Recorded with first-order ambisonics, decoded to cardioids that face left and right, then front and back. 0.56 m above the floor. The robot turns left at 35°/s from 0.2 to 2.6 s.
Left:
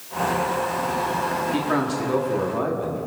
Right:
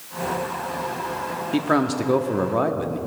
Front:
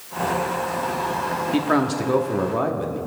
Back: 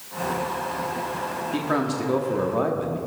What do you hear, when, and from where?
1.5 s a man speaking: 45° right, 0.9 m; by 3.0 s 80° right, 0.9 m